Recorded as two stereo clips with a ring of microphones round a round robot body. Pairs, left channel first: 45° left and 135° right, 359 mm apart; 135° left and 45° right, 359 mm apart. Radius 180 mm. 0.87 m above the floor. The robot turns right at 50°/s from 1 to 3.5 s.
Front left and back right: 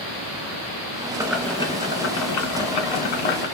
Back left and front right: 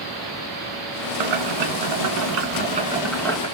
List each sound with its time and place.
1.2 s boiling: 55° right, 1.6 m; by 3.5 s 60° left, 1.6 m